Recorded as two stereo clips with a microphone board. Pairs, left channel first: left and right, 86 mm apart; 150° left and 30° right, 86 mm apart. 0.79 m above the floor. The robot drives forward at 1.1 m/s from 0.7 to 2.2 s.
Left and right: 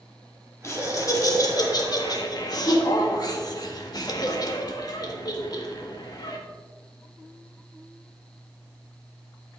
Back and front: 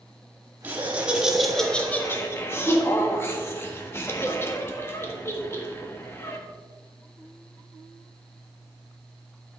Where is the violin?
I don't hear a violin.